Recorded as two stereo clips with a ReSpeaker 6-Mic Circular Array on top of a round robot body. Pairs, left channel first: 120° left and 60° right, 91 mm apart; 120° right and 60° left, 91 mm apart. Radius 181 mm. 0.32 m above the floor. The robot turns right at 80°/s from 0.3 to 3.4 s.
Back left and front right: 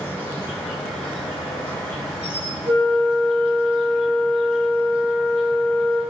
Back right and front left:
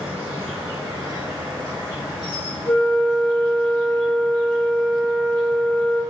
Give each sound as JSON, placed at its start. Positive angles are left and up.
{"t": 0.0, "sound": "an insect", "azimuth_deg": 60, "distance_m": 1.2}
{"t": 2.7, "sound": "a flute", "azimuth_deg": -90, "distance_m": 0.7}